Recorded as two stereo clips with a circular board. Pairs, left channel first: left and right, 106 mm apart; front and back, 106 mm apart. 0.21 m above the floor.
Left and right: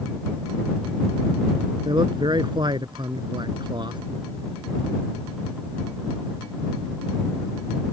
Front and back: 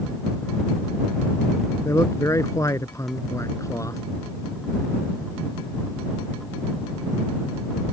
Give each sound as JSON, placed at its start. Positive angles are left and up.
{"t": 1.9, "sound": "a man speaking", "azimuth_deg": -55}